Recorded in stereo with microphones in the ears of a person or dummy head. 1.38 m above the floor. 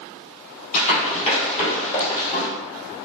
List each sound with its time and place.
0.7 s running footsteps: 45° left (ahead or behind), 2 m; by 2.5 s 35° left (ahead or behind), 2.5 m